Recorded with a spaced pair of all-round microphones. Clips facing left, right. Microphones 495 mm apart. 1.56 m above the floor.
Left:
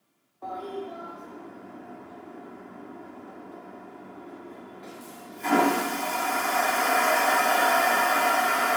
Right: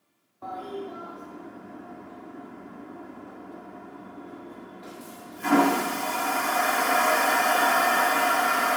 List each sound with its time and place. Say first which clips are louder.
0.4 s a toilet flushing: even; 30° right (ahead or behind), 0.6 m